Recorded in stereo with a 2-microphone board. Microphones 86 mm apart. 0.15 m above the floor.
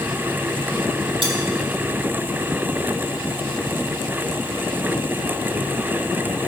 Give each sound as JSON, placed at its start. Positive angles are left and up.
{"t": 1.2, "sound": "cutlery clinking", "side_deg": -75, "distance_m": 2.5}